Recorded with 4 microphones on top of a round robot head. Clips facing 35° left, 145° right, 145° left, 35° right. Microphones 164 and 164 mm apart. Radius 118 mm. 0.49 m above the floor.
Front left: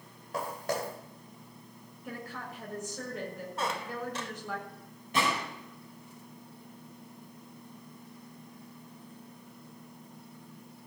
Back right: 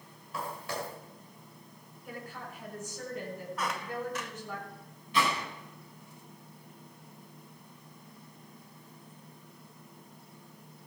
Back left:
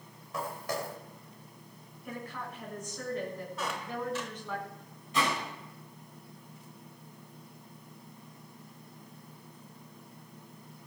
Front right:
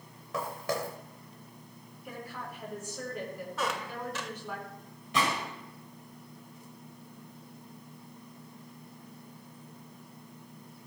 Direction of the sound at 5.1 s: 10° right.